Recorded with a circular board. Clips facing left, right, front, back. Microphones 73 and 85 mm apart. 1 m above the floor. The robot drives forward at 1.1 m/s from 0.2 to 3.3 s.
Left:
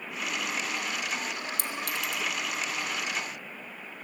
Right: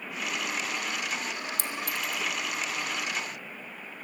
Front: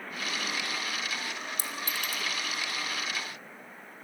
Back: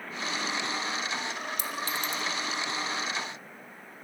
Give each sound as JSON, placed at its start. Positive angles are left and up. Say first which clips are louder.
{"t": 1.6, "sound": "a clink", "louder": "even, back 3 dB", "azimuth_deg": 50, "distance_m": 1.1}